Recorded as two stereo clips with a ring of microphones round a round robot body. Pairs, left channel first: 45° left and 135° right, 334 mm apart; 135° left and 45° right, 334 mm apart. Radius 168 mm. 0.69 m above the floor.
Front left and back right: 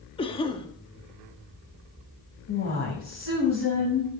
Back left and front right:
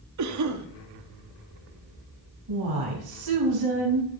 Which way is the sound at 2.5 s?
10° right.